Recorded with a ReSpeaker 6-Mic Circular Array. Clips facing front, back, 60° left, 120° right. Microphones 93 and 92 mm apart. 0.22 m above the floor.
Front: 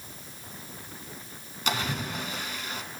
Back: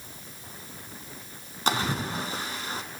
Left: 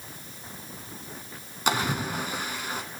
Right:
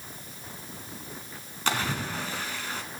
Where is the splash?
135° left, 0.9 m.